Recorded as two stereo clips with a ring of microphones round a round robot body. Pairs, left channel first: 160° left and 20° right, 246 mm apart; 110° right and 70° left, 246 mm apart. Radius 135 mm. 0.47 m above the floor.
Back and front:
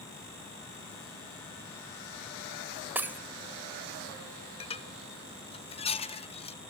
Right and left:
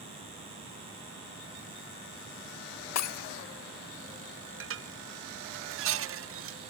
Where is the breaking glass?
105° right, 1.3 m.